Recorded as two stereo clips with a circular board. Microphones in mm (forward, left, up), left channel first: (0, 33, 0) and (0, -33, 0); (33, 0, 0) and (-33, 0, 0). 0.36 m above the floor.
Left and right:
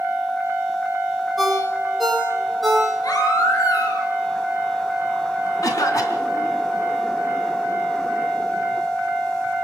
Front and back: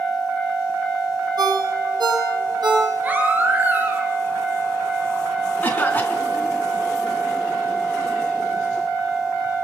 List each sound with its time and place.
1.4 s a ringtone: straight behind, 8 m
3.0 s a baby crying: 115° left, 4 m
5.6 s a cough: 65° left, 3.5 m